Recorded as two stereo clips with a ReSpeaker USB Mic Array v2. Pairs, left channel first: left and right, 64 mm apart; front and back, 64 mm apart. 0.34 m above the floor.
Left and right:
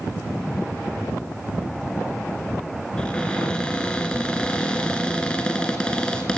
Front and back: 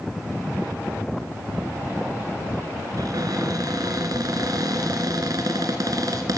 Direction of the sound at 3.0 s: 165° left.